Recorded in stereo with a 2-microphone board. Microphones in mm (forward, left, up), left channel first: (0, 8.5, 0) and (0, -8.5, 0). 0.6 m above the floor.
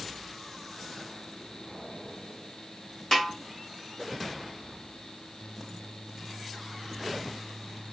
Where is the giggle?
No giggle in this recording.